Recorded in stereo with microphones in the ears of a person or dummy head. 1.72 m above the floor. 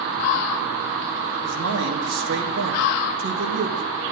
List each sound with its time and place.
1.4 s a man speaking: 90° right, 3 m